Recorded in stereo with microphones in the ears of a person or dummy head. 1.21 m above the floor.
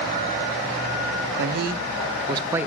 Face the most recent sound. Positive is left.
turn(degrees=-10)  # may be behind; listen again after turning